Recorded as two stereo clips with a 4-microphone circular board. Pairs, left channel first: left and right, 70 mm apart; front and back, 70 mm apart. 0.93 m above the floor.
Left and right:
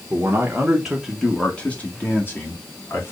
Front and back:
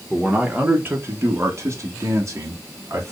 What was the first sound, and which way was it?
A man speaking, 105° right.